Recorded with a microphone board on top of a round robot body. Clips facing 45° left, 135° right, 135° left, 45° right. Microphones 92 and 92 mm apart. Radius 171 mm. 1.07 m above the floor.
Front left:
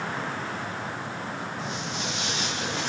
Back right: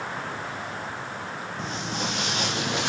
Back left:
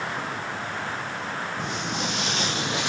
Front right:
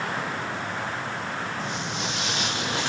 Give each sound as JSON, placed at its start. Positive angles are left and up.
{"t": 1.6, "sound": "footsteps", "azimuth_deg": 170, "distance_m": 3.0}